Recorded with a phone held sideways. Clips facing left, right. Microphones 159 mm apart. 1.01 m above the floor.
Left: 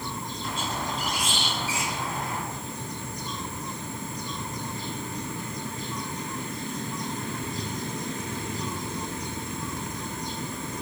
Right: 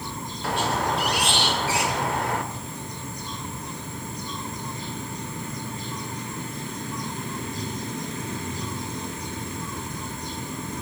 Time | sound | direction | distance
0.4 | a squeak | 70° right (ahead or behind) | 1.6 m